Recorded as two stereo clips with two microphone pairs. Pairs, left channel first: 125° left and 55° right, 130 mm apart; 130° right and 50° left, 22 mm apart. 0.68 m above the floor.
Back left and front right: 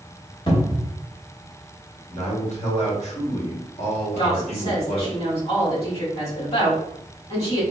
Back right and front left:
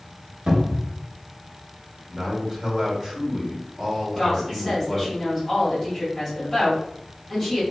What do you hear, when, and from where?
0.5 s a cupboard door: 80° left, 0.9 m
2.1 s a man speaking: 115° left, 1.4 m
4.2 s a woman speaking: 150° left, 1.9 m